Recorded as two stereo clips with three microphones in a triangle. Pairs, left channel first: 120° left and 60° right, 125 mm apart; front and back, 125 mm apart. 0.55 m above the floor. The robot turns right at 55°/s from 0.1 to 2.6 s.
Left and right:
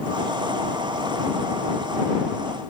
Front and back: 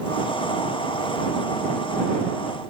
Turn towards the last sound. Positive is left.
No sound to turn to.